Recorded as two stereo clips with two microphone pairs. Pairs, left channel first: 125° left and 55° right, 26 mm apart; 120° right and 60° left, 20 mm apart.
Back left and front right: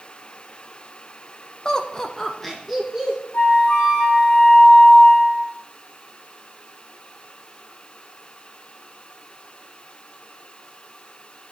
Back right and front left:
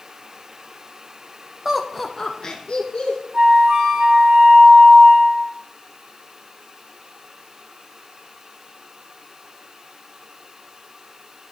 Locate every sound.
1.6 s laughter: 105° left, 0.8 m; by 3.2 s 140° right, 1.4 m
3.3 s a flute: 100° left, 3 m